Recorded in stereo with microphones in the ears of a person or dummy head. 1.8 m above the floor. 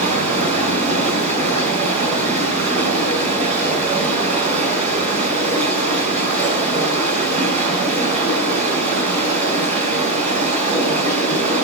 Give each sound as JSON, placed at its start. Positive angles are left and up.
{"t": 0.0, "sound": "running water", "side_deg": -40, "distance_m": 4.0}